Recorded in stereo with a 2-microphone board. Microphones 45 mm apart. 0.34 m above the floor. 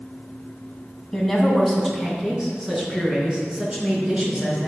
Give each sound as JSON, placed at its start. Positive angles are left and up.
{"t": 1.1, "sound": "a woman speaking", "side_deg": 0, "distance_m": 2.5}